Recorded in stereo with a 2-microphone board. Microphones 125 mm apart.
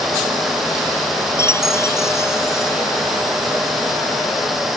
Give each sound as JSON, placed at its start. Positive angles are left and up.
{"t": 1.4, "sound": "a chime", "side_deg": 20}